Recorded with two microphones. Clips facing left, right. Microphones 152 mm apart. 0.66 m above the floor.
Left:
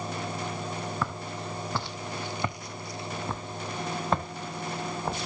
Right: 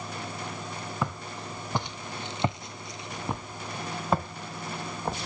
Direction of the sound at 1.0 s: 15° right (ahead or behind).